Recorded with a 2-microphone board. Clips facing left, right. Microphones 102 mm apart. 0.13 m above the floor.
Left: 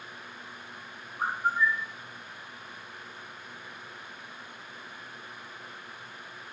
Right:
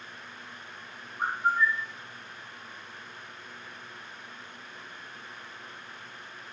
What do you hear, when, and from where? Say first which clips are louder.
1.2 s a bird: right 1 dB; 10° left (ahead or behind), 0.9 m